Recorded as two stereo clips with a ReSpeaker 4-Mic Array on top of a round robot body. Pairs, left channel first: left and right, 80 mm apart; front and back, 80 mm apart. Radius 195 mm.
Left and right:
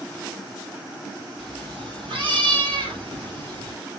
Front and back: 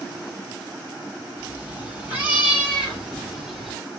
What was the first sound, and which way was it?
A cat meowing, 110° right.